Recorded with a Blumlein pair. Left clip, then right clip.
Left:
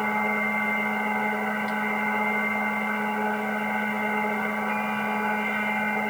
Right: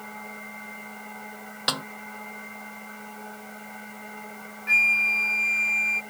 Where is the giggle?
No giggle in this recording.